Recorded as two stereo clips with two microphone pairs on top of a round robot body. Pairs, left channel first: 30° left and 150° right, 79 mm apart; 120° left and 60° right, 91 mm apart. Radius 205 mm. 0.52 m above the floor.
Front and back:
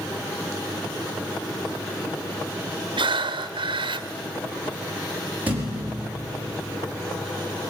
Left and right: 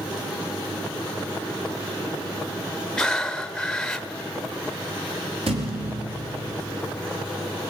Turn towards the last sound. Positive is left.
turn(degrees=-80)